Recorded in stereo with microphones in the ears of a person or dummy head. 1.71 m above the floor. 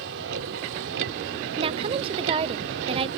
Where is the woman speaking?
35° right (ahead or behind).